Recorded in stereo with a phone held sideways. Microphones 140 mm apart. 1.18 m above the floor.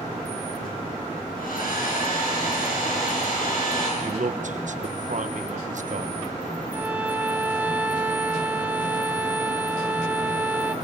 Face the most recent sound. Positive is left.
turn(degrees=-10)  # may be behind; listen again after turning